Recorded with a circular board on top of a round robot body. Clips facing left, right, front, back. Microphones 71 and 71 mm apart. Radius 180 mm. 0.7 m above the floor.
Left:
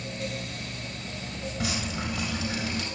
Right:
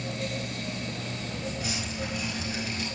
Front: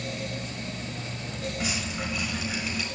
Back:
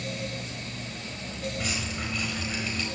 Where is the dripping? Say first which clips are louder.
Left 2 dB, front 1 dB; 85° left, 4 m.